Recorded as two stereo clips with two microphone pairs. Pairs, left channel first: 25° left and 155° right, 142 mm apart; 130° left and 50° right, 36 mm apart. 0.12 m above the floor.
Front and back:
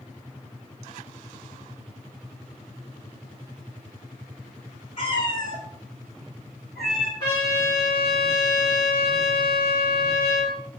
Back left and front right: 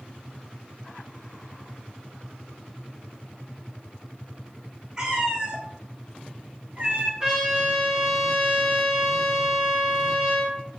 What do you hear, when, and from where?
5.0 s a cat meowing: straight ahead, 1.1 m; by 7.1 s 70° right, 1.5 m
7.2 s a trumpet: straight ahead, 1.8 m